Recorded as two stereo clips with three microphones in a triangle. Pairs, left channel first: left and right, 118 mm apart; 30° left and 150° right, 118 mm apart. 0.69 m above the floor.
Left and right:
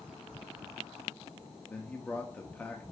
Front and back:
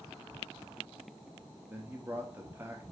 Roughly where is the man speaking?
Behind left.